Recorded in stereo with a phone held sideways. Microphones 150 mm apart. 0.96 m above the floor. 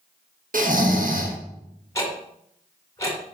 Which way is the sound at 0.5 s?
65° right (ahead or behind).